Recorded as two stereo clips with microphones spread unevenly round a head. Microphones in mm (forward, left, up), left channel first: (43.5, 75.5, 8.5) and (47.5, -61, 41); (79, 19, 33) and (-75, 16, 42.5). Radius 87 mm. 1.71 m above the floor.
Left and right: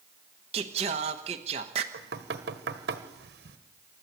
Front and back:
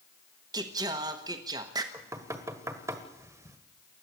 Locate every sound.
0.5 s singing: 120° right, 1.2 m
1.9 s knocking: 105° right, 1.5 m